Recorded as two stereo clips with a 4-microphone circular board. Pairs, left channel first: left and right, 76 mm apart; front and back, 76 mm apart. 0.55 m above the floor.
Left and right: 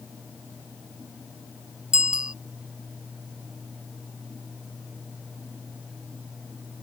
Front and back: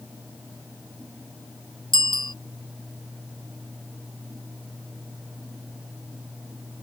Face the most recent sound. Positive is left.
turn(degrees=-10)